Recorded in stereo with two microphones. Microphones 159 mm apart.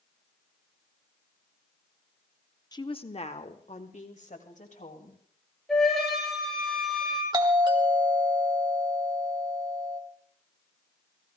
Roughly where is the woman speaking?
Left.